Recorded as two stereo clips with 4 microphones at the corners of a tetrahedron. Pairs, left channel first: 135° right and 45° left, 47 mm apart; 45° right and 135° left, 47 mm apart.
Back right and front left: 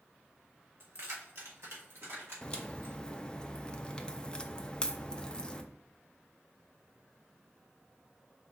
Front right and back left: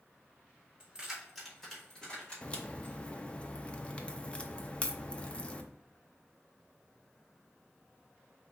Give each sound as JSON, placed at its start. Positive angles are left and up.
{"t": 0.8, "sound": "keys jangling", "azimuth_deg": 70, "distance_m": 1.8}
{"t": 2.4, "sound": "a crack", "azimuth_deg": -75, "distance_m": 0.5}